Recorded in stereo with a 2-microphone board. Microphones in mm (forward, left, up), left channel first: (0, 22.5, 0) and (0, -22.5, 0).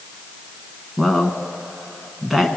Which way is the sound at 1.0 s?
5° right (ahead or behind).